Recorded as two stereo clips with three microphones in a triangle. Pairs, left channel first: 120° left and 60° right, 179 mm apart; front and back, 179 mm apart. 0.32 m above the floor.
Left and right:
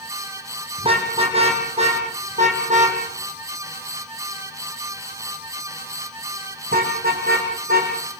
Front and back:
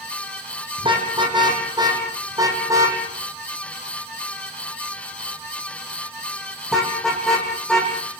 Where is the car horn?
115° right, 6 m; by 7.9 s 90° right, 8 m.